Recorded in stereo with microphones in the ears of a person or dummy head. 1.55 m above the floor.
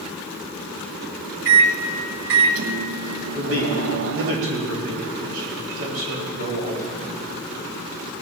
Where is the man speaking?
80° right, 3.5 m.